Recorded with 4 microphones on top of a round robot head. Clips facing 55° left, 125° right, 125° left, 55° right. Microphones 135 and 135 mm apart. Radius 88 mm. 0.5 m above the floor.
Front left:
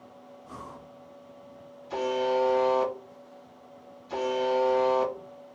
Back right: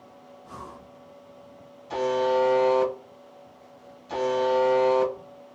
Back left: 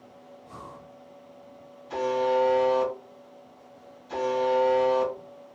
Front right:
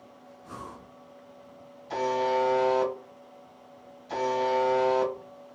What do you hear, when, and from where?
0.4 s breathing: 35° right, 0.9 m
1.9 s a buzzer: 90° right, 2 m